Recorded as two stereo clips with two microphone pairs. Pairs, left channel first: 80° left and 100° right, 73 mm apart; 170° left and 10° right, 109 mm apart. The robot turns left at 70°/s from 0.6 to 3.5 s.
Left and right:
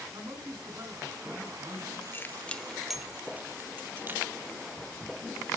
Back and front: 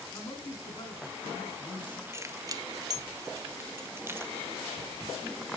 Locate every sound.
0.1 s a man speaking: 135° right, 3 m; by 2.0 s 125° left, 3 m
2.1 s keys jangling: 40° left, 0.6 m; by 4.3 s 55° right, 0.6 m